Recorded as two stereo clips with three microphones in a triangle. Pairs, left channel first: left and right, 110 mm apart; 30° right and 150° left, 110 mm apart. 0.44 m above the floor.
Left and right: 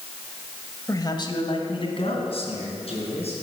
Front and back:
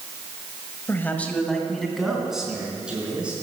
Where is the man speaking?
35° left, 1.7 m; by 3.3 s 70° left, 5 m.